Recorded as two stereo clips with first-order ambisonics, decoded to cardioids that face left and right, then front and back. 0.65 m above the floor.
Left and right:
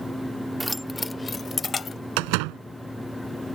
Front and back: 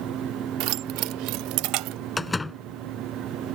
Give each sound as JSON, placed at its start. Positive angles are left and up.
{"t": 0.6, "sound": "keys jangling", "azimuth_deg": -175}
{"t": 2.2, "sound": "a door slam", "azimuth_deg": -80}